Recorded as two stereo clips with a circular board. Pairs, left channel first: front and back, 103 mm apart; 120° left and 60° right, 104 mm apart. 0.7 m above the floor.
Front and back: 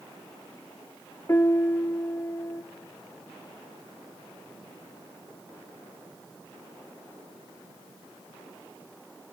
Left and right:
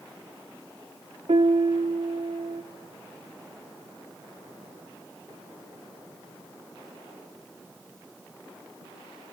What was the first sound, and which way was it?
A piano, 60° right.